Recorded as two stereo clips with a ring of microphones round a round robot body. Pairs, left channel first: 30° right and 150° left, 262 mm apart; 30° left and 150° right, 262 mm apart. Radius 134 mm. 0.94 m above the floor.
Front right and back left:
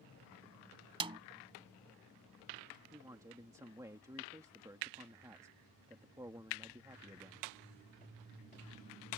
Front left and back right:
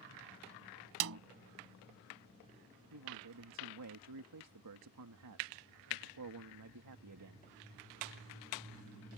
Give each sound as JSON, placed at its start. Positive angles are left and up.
{"t": 1.0, "sound": "a snare drum", "azimuth_deg": -145}
{"t": 2.9, "sound": "a man speaking", "azimuth_deg": -130}